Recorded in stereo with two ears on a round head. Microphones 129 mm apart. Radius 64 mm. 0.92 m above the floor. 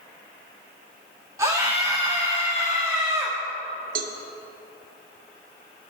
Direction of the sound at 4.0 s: 65° right (ahead or behind).